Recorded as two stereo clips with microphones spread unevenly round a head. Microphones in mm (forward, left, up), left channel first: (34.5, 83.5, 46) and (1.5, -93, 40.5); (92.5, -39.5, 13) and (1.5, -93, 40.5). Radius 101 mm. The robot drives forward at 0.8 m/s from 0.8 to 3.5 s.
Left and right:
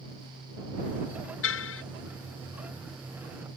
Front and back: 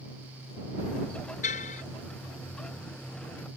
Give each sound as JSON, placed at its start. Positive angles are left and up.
{"t": 1.4, "sound": "a car horn", "azimuth_deg": 65}